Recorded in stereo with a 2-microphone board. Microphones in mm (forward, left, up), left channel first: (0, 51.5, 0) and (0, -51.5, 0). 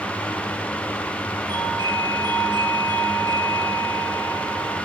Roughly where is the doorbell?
Right.